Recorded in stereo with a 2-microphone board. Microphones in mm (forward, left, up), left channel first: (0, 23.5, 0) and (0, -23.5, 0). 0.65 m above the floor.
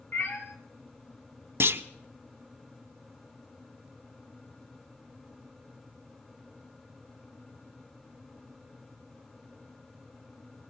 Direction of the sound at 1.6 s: 65° right (ahead or behind).